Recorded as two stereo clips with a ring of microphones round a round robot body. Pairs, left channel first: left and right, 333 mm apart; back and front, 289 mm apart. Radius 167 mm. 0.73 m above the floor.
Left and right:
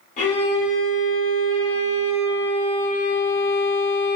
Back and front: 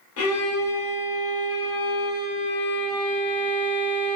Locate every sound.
0.2 s a violin: 155° left, 0.7 m